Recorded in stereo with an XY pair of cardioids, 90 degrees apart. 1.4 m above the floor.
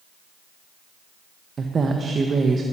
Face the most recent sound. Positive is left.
turn(degrees=-45)